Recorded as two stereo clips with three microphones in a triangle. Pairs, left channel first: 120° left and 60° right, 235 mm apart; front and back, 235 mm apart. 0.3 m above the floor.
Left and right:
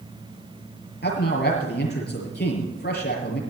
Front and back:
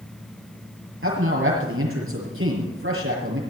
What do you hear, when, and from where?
1.0 s a man speaking: 160° left, 6.5 m